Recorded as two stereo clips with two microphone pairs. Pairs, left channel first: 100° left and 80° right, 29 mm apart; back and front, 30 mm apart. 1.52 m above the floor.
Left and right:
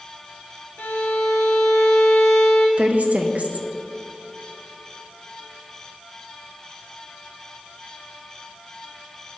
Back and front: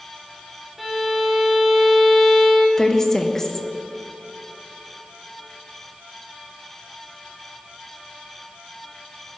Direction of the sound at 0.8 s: 90° left.